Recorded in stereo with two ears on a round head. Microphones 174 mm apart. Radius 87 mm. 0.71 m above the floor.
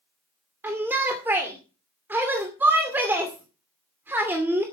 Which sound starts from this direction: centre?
A shout, at 0.6 s.